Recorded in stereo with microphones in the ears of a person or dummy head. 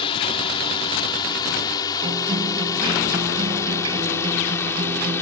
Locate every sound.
0.0 s a drone: 30° left (ahead or behind); by 5.2 s 15° left (ahead or behind)
2.0 s a guitar: 25° right (ahead or behind)